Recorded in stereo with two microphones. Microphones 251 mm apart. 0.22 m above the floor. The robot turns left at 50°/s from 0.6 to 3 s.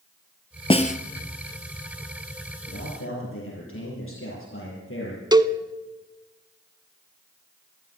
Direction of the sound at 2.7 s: 70° left (ahead or behind).